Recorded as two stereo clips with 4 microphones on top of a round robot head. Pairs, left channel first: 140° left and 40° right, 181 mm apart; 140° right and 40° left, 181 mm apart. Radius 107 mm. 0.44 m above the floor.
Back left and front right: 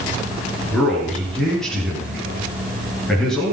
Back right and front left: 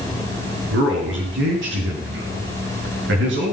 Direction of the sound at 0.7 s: 55° left.